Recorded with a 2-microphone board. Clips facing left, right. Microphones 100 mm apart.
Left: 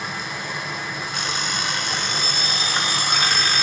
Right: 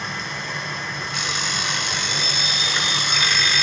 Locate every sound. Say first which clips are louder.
0.0 s running water: even; 5° left (ahead or behind), 2.5 m
1.1 s an alarm clock: left 1 dB; 40° left (ahead or behind), 1.1 m